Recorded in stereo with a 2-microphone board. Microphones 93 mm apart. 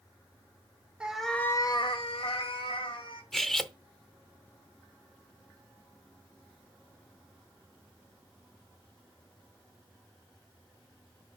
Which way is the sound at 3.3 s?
5° left (ahead or behind).